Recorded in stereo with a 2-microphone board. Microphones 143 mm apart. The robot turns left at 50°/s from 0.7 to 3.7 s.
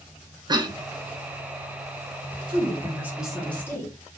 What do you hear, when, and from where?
0.5 s a cough: 30° right (ahead or behind), 0.6 m
2.5 s a woman speaking: 140° right, 1.1 m; by 3.9 s 160° left, 1.1 m